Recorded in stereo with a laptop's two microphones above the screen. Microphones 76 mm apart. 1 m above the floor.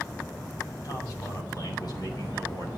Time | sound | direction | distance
0.8 | a man speaking | 50° left (ahead or behind) | 7 m